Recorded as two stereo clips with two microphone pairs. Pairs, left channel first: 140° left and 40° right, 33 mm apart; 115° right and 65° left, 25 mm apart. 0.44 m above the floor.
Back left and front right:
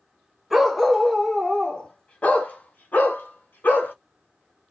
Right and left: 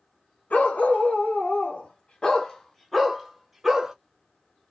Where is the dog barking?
120° right, 1.2 m; by 3.9 s 145° left, 1.2 m.